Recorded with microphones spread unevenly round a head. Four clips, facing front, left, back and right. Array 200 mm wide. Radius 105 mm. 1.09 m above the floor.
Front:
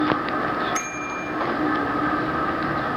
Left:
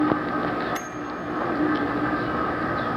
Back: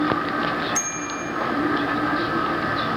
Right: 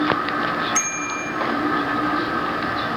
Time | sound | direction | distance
0.8 | a bicycle bell | 30° right | 4.5 m